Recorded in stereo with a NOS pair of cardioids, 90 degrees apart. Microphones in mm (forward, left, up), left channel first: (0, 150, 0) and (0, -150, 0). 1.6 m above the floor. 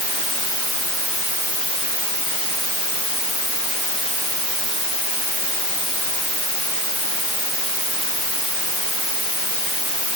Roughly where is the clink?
No clink in this recording.